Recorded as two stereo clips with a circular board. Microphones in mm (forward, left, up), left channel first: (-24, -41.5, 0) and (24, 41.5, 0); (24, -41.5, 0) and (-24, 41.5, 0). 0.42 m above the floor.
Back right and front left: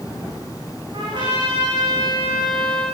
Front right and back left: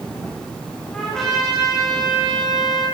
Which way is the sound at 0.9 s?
25° left.